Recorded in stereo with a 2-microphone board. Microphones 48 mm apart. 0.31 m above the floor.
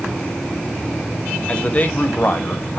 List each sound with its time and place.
1.5 s a man speaking: 25° left (ahead or behind), 1.2 m; by 2.8 s 45° left (ahead or behind), 1.5 m